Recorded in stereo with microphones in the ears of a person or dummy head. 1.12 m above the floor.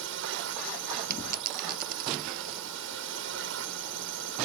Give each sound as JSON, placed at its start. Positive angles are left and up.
{"t": 0.0, "sound": "a drone", "side_deg": -65}
{"t": 1.1, "sound": "a dropped coin", "side_deg": -55}